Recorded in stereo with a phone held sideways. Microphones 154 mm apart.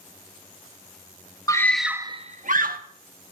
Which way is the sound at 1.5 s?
20° left (ahead or behind).